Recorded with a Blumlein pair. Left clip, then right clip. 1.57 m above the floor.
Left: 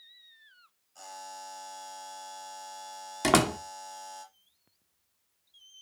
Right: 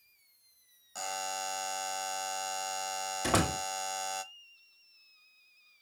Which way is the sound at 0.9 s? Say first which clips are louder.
Right 7 dB; 50° right.